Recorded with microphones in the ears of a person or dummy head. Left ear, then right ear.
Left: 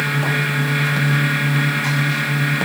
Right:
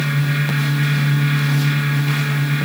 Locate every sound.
Only background noise.